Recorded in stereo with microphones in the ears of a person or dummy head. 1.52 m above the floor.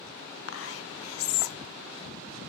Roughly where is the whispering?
Left.